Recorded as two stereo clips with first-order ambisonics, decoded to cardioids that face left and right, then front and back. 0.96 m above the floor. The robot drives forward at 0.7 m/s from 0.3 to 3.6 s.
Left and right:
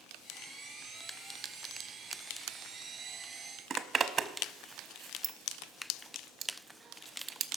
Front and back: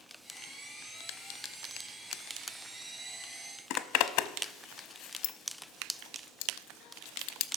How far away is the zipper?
About 0.6 m.